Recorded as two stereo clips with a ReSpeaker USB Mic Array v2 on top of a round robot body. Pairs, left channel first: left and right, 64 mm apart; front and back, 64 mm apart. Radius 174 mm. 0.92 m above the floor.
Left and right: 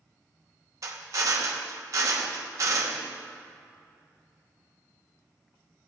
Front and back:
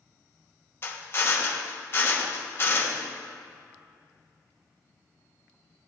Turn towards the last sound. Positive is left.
turn(degrees=-55)